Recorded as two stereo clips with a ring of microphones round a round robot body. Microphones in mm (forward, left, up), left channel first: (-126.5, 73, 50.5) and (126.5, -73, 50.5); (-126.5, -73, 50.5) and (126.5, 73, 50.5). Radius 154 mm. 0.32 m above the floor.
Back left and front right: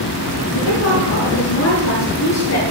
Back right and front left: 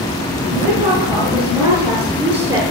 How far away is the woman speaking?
About 7 m.